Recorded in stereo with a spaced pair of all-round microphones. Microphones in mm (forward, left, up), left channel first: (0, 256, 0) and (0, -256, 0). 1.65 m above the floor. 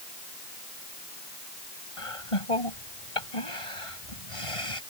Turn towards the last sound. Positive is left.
turn(degrees=80)